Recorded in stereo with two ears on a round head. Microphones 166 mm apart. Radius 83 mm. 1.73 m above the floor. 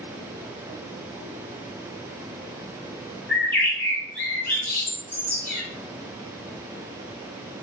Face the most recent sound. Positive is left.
turn(degrees=10)  # may be behind; listen again after turning